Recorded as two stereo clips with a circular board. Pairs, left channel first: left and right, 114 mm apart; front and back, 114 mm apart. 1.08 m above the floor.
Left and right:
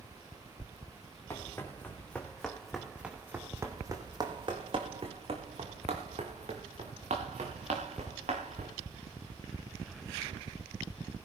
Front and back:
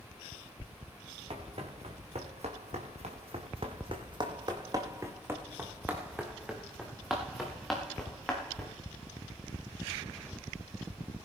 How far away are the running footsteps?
About 3.5 m.